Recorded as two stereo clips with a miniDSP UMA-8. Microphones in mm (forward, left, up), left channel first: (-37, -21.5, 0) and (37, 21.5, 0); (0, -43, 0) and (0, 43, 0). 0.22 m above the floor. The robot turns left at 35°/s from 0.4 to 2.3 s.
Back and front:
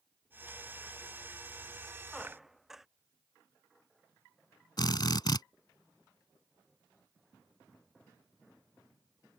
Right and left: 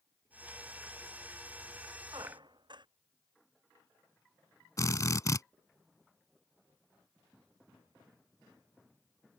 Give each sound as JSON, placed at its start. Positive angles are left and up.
{"t": 2.1, "sound": "a squeak", "azimuth_deg": 125}
{"t": 4.8, "sound": "a drill", "azimuth_deg": -130}